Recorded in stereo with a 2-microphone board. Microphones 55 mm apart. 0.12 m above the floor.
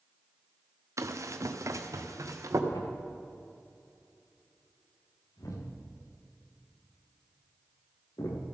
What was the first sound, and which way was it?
Running footsteps, 65° right (ahead or behind).